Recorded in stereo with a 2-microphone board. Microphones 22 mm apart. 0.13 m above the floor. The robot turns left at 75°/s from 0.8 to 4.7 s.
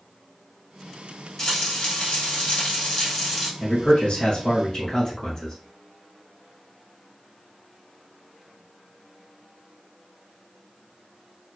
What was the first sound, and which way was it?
Frying, 150° left.